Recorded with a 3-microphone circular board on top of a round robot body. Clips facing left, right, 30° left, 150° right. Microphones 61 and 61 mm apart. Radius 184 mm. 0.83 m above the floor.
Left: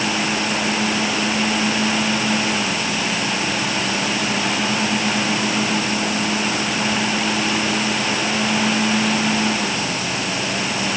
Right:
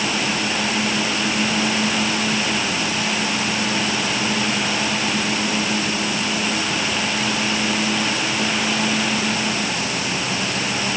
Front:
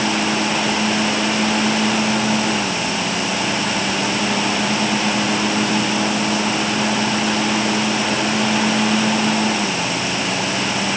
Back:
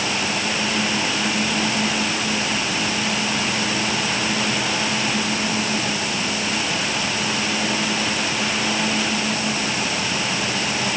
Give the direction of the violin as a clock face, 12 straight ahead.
I don't hear a violin.